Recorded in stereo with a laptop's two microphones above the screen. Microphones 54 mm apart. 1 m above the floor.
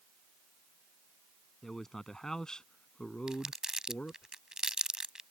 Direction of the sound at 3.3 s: 15° right (ahead or behind).